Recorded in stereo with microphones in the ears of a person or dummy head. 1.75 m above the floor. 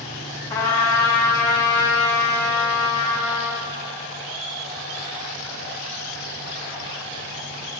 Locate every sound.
0.5 s a trumpet: 15° left (ahead or behind), 1.5 m